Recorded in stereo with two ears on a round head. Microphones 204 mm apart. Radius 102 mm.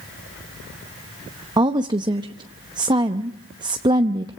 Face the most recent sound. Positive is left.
turn(degrees=-20)  # may be behind; listen again after turning